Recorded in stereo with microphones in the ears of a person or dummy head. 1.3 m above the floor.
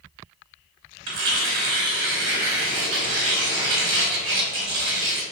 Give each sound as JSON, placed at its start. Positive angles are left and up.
{"t": 1.1, "sound": "tearing paper", "side_deg": -50, "distance_m": 1.3}